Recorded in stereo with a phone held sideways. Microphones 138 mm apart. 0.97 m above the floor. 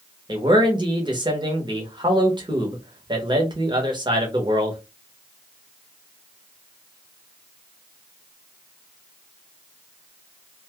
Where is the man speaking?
35° right (ahead or behind), 1.0 m.